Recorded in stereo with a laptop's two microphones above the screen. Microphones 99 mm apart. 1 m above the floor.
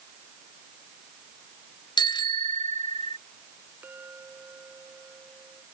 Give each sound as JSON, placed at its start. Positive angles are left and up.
{"t": 2.0, "sound": "a bicycle bell", "side_deg": 55}
{"t": 3.8, "sound": "a clink", "side_deg": -20}